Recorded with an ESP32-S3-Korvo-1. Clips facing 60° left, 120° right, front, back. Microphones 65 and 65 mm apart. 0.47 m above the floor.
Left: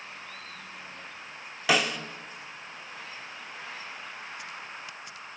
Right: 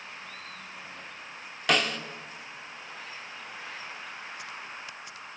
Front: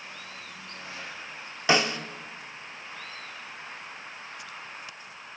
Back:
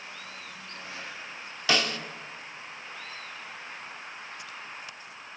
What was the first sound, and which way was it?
A snare drum, 20° right.